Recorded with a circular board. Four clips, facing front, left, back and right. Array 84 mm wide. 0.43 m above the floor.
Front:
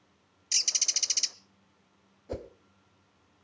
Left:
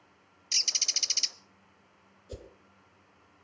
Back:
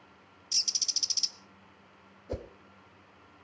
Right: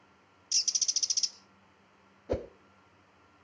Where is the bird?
45° left, 0.7 m.